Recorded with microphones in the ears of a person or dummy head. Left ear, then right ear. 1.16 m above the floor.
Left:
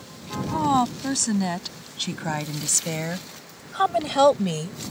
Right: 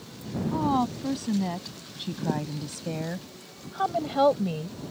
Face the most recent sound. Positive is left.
turn(degrees=85)